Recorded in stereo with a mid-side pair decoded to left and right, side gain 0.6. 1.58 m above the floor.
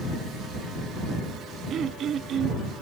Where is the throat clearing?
45° right.